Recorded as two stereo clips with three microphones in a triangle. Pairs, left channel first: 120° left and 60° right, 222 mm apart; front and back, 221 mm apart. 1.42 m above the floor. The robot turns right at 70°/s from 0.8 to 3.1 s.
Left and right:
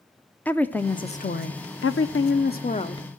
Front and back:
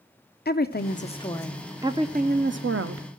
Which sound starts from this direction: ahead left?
A woman speaking, at 0.5 s.